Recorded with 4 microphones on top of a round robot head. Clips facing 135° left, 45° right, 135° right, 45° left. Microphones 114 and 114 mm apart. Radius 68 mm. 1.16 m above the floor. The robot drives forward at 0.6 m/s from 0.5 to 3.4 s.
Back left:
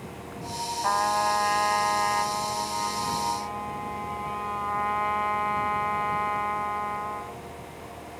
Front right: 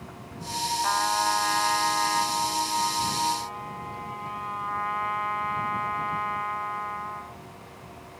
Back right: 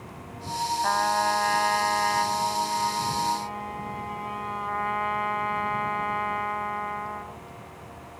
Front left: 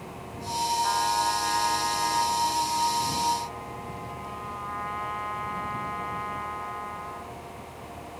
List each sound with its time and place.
0.8 s a trumpet: 170° right